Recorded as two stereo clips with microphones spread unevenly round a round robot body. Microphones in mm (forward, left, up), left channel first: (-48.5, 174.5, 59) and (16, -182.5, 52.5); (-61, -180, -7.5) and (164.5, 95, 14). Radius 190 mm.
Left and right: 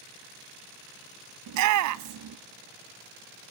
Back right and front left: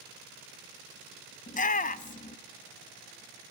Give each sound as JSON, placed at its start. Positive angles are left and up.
{"t": 1.5, "sound": "a shout", "azimuth_deg": -75, "distance_m": 0.5}